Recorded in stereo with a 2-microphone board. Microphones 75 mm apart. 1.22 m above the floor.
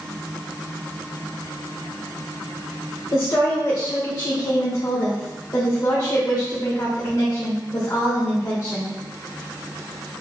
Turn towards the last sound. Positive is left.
turn(degrees=50)  # may be behind; listen again after turning